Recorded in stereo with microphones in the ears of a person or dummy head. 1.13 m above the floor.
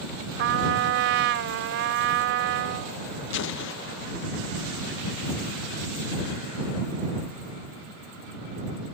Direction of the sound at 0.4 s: 70° right (ahead or behind).